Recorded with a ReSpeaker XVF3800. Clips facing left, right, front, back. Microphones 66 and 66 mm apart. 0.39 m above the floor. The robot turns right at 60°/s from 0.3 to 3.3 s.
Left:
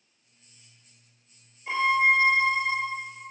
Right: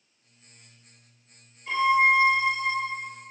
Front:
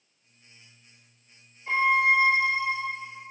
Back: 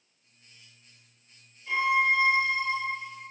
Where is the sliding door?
I don't hear a sliding door.